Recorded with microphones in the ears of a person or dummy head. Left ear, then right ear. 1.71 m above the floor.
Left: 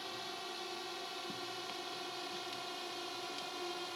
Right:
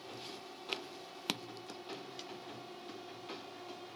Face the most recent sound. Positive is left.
turn(degrees=60)  # may be behind; listen again after turning